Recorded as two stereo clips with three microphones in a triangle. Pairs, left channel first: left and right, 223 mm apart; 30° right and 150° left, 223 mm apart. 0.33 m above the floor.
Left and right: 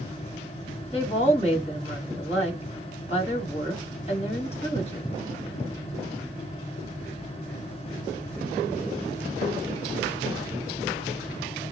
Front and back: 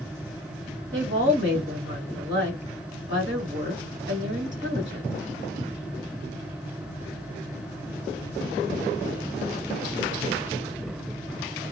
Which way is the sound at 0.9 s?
145° left.